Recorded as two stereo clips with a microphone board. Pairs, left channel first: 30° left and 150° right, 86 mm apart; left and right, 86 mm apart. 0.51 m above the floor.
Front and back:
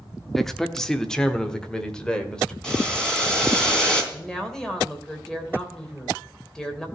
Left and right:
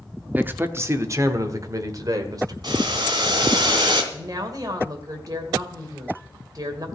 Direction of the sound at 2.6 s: 50° right.